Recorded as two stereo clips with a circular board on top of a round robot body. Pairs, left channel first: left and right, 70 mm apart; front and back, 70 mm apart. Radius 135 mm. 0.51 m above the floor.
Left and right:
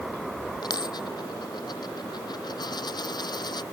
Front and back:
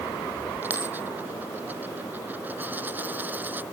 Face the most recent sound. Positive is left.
turn(degrees=115)